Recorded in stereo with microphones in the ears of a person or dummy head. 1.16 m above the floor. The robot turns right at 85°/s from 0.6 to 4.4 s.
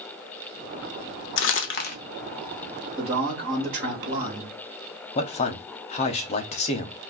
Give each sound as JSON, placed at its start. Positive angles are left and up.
{"t": 1.4, "sound": "crumpling", "side_deg": 60, "distance_m": 0.6}
{"t": 3.0, "sound": "a man speaking", "azimuth_deg": -160, "distance_m": 1.0}
{"t": 5.2, "sound": "a man speaking", "side_deg": 35, "distance_m": 0.6}